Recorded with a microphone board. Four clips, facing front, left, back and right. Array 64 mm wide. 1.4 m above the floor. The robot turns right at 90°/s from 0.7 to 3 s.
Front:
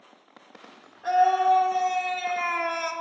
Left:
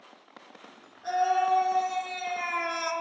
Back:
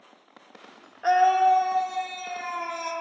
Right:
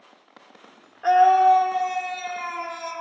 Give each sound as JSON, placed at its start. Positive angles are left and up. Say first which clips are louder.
{"t": 1.0, "sound": "a scream", "louder": "right 10 dB, back 1 dB", "azimuth_deg": -130, "distance_m": 0.7}